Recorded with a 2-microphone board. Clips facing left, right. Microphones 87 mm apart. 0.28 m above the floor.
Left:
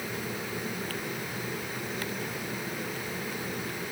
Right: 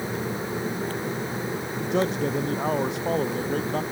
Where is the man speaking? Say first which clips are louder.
Right 11 dB; 75° right (ahead or behind); by 3.8 s 80° right.